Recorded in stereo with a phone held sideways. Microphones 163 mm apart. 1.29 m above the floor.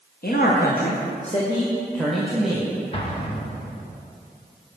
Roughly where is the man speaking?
Left.